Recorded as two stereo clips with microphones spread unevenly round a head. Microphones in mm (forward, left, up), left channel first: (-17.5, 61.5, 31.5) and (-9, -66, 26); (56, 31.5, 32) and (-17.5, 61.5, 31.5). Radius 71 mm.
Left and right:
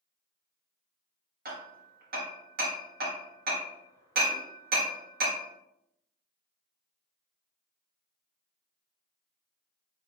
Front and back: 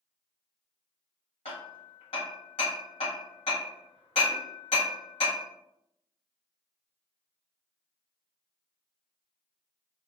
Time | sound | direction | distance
1.4 | hammering | 60° right | 1.3 m